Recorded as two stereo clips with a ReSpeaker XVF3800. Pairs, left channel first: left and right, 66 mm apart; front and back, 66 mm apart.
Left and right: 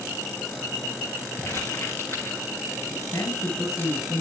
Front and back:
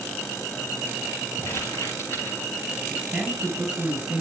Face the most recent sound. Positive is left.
turn(degrees=105)